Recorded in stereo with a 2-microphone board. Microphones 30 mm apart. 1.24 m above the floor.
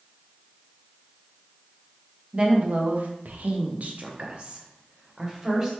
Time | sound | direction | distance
2.3 | a woman speaking | 40° right (ahead or behind) | 0.7 m